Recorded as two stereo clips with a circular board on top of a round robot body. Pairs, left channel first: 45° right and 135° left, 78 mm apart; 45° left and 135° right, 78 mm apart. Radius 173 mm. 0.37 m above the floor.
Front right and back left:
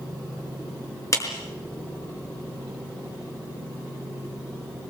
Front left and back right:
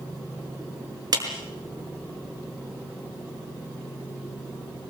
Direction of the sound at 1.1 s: 95° right.